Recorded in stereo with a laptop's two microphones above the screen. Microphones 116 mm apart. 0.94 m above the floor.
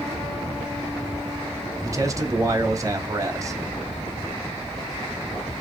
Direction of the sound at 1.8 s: 30° right (ahead or behind).